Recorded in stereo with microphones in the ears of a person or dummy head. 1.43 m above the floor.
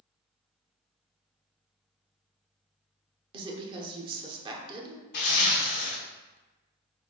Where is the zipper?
60° left (ahead or behind), 0.9 m.